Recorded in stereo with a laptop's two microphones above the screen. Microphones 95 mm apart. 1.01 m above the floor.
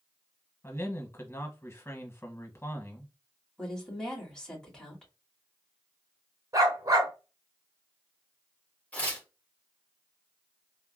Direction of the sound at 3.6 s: 5° left (ahead or behind).